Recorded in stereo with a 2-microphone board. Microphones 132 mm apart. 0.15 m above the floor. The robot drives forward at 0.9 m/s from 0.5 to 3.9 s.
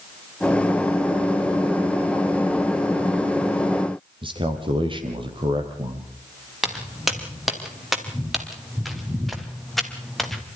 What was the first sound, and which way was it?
A man speaking, 40° right (ahead or behind).